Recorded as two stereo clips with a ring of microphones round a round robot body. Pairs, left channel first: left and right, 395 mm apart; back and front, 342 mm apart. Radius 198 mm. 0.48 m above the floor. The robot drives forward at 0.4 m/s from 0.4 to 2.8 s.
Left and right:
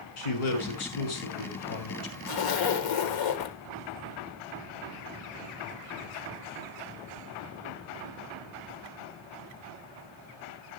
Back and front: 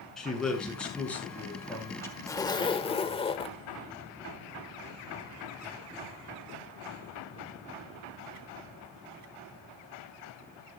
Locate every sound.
0.2 s a man speaking: 90° left, 6 m; by 2.2 s 100° left, 6.5 m
2.3 s a zipper: 100° left, 1.7 m; by 3.6 s 110° left, 1.7 m